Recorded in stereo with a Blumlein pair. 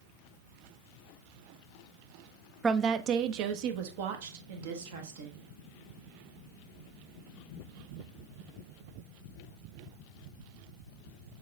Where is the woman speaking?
15° right, 0.7 m; by 5.4 s 60° right, 2.5 m.